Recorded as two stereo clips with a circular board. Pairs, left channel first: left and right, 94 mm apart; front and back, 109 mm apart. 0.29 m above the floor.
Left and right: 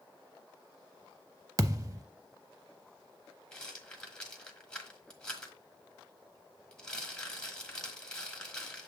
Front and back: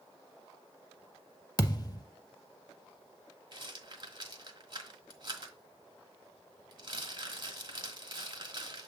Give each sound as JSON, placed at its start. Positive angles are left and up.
{"t": 1.6, "sound": "a thud", "azimuth_deg": -45, "distance_m": 0.6}
{"t": 3.5, "sound": "a rattle", "azimuth_deg": 165, "distance_m": 1.4}